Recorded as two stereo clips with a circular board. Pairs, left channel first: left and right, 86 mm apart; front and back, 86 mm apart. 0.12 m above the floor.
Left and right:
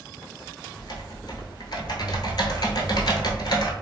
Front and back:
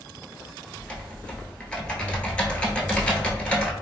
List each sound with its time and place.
0.8 s typing on a keyboard: 75° left, 0.8 m